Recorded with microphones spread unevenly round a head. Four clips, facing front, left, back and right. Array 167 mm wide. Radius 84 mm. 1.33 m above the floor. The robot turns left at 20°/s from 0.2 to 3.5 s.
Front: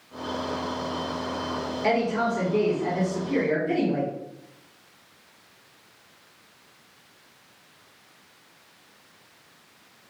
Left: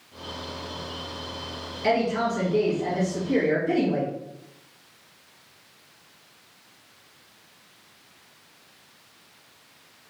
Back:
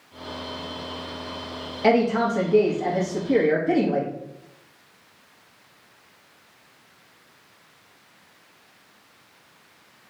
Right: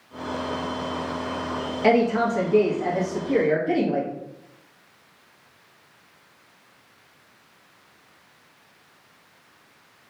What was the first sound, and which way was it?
A woman speaking, 150° right.